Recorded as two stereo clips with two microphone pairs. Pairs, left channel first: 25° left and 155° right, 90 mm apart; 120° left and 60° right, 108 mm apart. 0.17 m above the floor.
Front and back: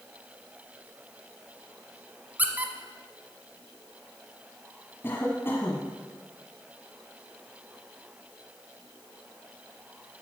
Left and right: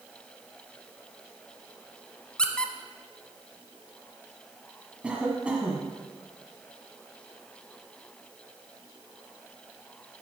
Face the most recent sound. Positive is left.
turn(degrees=10)